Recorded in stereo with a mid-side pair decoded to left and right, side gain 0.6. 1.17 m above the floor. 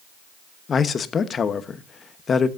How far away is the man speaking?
About 1.0 m.